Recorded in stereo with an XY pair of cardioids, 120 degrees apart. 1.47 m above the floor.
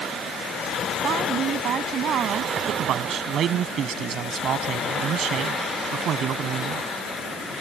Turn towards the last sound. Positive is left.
turn(degrees=-55)